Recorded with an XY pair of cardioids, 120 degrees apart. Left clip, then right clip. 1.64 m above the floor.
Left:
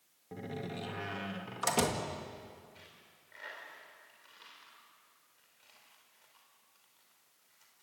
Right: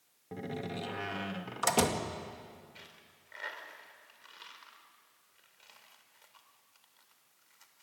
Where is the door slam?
15° right, 2 m.